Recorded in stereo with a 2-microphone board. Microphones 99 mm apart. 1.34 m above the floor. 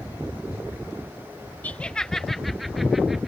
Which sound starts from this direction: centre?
Laughter, at 1.6 s.